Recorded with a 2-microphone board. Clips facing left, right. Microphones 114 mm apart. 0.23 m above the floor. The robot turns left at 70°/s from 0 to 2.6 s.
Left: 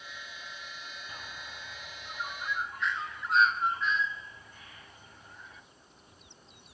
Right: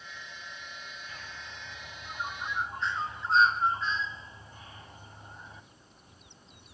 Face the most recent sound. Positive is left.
turn(degrees=-30)  # may be behind; listen again after turning